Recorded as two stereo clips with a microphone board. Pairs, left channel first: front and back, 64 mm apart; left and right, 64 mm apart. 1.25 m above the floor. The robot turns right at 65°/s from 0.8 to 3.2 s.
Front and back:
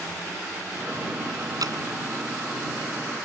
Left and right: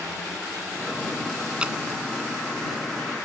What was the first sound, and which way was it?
Dripping, 165° right.